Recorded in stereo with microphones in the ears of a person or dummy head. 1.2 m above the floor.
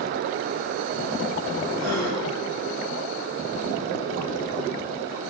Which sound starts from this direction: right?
A gasp, at 1.8 s.